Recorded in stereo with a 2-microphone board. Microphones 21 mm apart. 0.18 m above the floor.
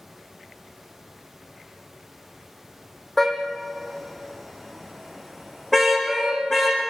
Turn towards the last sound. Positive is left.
turn(degrees=10)  # may be behind; listen again after turning